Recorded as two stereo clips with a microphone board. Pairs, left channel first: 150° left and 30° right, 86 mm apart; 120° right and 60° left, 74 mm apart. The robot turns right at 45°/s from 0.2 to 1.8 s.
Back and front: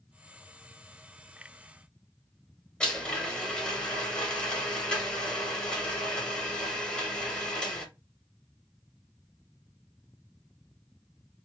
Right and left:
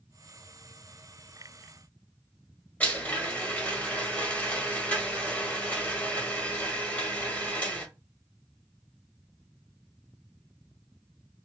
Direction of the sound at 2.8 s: 150° right.